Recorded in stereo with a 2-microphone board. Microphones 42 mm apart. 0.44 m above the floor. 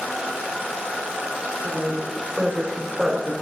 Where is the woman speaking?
50° right (ahead or behind), 2.5 m; by 3.3 s 10° left (ahead or behind), 1.6 m.